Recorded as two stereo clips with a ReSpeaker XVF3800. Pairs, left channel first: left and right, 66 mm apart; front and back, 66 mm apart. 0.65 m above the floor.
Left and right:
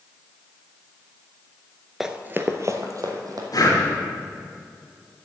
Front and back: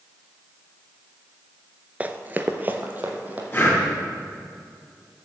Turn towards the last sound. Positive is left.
turn(degrees=55)